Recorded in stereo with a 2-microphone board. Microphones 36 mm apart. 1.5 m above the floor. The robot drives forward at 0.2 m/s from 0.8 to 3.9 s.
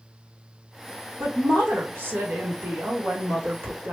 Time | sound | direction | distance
1.2 | a woman speaking | 80° right | 1.7 m